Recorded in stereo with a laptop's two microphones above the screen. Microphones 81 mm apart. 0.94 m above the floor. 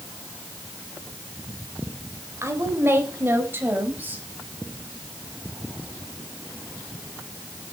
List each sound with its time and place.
2.4 s a woman speaking: 35° right (ahead or behind), 4 m; by 4.2 s 20° right (ahead or behind), 5.5 m